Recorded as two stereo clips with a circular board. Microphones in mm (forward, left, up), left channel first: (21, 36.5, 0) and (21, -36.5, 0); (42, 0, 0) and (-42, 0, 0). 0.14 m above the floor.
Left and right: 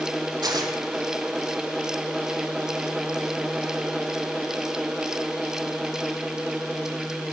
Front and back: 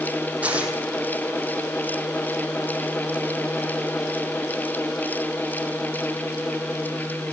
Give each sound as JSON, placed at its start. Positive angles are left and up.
{"t": 0.4, "sound": "tearing paper", "azimuth_deg": -105, "distance_m": 3.5}